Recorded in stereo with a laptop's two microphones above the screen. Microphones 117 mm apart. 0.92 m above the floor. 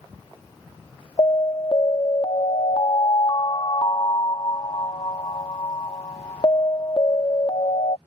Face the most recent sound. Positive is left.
turn(degrees=45)  # may be behind; listen again after turning